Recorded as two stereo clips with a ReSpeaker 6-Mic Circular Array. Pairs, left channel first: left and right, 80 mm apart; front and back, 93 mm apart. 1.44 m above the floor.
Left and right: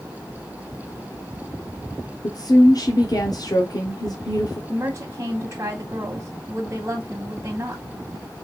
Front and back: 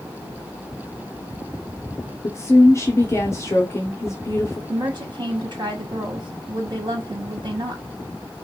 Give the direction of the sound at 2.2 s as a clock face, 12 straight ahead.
10 o'clock.